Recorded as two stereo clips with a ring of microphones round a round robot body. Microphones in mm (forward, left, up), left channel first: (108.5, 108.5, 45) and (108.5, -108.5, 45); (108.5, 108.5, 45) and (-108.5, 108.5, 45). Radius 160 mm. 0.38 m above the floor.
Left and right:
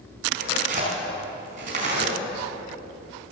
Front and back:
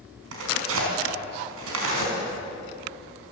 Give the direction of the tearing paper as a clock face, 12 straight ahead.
5 o'clock.